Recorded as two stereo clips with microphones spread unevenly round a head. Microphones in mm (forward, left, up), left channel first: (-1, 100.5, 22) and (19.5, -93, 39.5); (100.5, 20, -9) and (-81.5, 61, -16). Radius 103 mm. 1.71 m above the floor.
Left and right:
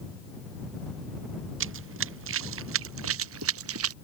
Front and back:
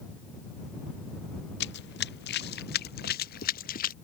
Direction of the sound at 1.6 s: 55° right.